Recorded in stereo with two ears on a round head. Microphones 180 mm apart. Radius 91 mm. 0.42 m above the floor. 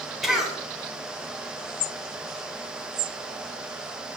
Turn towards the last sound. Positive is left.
turn(degrees=0)  # may be behind; listen again after turning